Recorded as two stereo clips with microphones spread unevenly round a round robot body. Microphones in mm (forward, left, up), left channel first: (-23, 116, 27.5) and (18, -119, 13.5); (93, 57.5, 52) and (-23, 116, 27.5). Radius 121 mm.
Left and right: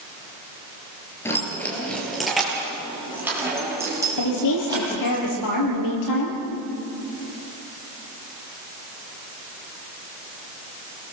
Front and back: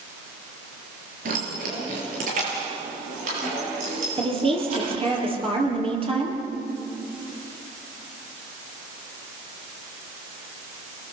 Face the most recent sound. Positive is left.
turn(degrees=105)